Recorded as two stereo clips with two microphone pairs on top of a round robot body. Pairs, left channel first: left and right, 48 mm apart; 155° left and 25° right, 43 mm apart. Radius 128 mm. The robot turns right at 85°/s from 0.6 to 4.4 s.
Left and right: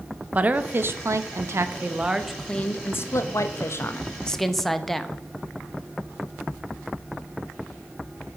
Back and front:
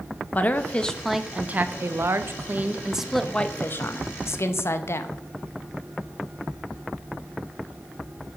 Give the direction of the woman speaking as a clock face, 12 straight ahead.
5 o'clock.